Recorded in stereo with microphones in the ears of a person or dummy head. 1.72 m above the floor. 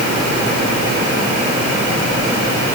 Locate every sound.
Only background noise.